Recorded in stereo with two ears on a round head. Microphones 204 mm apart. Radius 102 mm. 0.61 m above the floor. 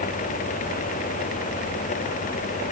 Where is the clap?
I don't hear a clap.